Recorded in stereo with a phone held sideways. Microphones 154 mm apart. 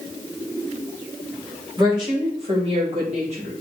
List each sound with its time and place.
1.8 s a woman speaking: 30° right (ahead or behind), 4.5 m; by 3.5 s 50° right (ahead or behind), 5.5 m